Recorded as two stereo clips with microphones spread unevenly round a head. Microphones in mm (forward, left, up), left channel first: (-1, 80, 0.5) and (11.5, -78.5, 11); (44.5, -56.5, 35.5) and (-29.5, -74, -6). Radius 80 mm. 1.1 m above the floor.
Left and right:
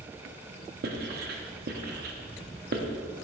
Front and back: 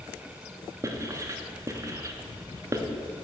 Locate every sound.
0.8 s writing: 100° right, 0.8 m